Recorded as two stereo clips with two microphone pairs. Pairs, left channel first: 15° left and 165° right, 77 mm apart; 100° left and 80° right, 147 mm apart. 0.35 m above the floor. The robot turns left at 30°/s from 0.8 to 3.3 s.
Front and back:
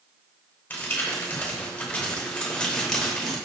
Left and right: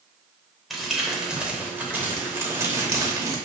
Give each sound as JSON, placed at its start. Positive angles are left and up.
{"t": 0.7, "sound": "crumpling", "azimuth_deg": 10, "distance_m": 0.9}